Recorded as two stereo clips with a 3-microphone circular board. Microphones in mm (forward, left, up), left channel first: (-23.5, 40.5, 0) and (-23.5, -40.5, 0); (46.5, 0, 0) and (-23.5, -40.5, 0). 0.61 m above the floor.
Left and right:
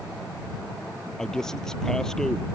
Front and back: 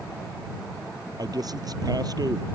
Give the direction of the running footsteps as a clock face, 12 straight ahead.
I don't hear running footsteps.